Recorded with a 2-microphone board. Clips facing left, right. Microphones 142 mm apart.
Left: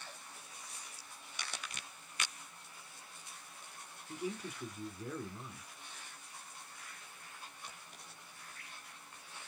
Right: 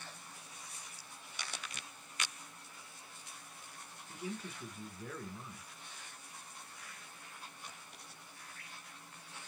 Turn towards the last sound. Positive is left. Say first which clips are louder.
# left 3 dB
turn(degrees=15)  # may be behind; listen again after turning